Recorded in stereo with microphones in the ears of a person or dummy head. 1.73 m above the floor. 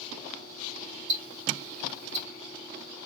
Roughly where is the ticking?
Right.